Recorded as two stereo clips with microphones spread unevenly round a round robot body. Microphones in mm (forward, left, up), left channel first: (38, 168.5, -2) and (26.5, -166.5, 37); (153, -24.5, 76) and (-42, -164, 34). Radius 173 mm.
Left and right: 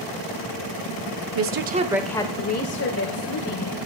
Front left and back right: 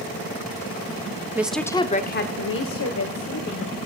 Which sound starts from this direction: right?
A woman speaking, at 1.4 s.